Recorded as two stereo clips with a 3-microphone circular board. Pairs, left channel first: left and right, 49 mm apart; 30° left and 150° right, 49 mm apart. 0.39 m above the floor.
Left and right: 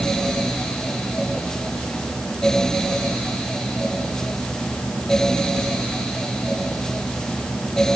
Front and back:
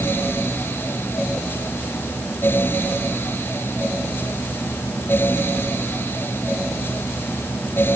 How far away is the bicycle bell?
No bicycle bell in this recording.